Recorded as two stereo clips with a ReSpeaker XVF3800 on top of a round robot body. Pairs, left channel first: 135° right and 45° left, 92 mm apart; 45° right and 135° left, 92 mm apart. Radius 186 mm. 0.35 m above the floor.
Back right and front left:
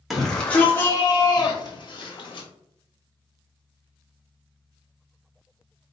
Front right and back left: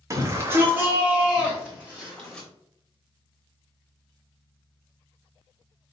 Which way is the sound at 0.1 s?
135° left.